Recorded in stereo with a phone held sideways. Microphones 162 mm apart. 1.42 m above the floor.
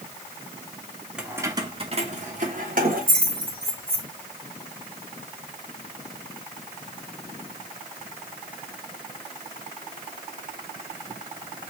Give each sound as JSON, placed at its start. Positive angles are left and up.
{"t": 1.2, "sound": "keys jangling", "side_deg": -5, "distance_m": 0.6}